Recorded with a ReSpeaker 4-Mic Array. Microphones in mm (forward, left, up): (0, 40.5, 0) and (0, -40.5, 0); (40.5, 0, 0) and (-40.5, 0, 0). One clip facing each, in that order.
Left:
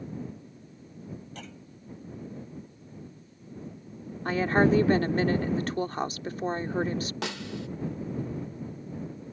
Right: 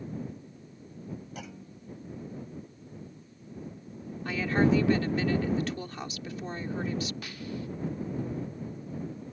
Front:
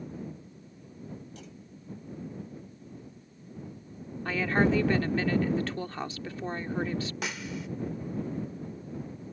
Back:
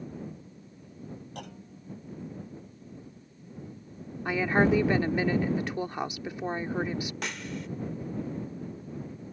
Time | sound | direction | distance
1.4 | a clunk | 170° right | ?
4.2 | a woman speaking | 115° left | ?
7.2 | a snare drum | 85° left | ?